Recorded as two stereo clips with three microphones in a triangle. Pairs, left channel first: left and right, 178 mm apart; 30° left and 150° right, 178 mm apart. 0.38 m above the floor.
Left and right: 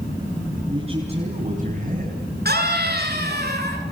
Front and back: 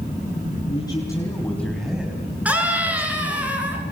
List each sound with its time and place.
0.7 s a man speaking: 35° right, 4 m; by 3.5 s 105° right, 3.5 m
2.5 s a scream: 70° right, 6 m